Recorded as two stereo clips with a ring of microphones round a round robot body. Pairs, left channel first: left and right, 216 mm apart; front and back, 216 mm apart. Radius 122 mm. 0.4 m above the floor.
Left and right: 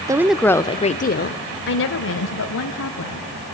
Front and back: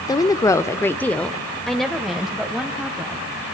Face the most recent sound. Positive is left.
turn(degrees=95)